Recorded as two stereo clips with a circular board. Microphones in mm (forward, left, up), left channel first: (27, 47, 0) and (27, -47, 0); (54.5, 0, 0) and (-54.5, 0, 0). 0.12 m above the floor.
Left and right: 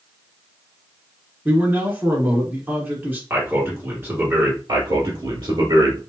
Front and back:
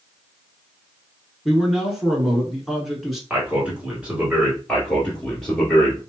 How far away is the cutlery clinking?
I don't hear cutlery clinking.